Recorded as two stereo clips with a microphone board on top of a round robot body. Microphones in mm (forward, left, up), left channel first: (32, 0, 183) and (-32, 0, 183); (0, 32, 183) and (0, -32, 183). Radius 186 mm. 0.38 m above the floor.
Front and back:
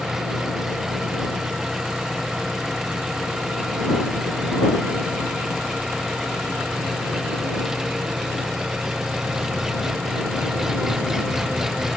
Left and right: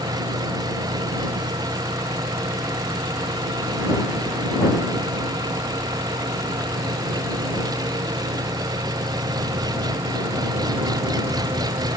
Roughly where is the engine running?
Right.